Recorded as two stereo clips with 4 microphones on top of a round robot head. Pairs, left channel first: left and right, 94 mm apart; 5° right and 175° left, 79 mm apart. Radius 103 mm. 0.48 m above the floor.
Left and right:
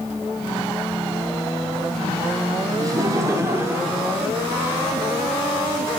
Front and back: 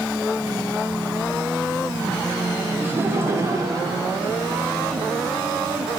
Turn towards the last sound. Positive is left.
turn(degrees=-170)